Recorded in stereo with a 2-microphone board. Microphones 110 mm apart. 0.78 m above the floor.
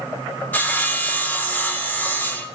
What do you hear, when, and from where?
0.5 s sawing: 15° left (ahead or behind), 0.9 m